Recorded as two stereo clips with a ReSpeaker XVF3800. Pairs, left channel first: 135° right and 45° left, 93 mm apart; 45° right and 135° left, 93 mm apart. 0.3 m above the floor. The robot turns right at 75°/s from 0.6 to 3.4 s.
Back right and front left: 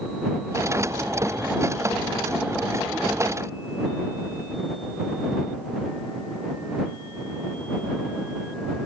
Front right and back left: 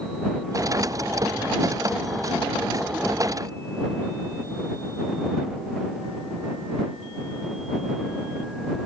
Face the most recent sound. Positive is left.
No sound to turn to.